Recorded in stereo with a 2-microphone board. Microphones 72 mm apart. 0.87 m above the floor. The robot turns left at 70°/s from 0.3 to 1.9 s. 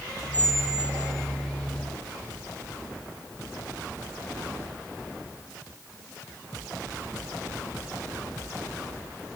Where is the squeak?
20° left, 4 m; by 1.3 s 45° right, 4 m.